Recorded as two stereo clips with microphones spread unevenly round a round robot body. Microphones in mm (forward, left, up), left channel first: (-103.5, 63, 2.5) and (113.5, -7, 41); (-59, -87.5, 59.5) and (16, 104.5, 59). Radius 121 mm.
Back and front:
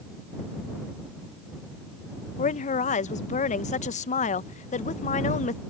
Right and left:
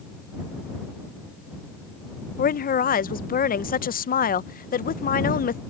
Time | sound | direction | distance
2.4 | a woman speaking | 150° right | ?